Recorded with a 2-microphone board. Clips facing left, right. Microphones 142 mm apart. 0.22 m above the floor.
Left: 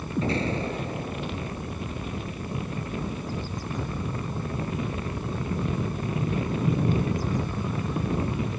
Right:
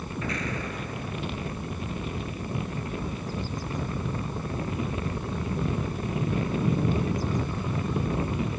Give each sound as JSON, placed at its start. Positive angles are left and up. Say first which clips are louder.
{"t": 0.2, "sound": "an explosion", "louder": "left 7 dB", "side_deg": 30}